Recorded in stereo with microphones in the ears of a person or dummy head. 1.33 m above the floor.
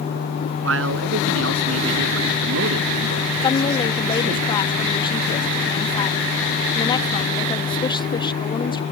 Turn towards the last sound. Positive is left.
turn(degrees=25)  # may be behind; listen again after turning